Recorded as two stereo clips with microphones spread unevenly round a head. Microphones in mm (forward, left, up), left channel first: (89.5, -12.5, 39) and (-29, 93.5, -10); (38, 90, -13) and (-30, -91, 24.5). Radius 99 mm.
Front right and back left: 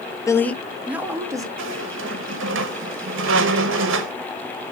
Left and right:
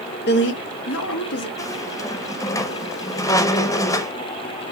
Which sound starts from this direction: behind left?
A squeak, at 1.6 s.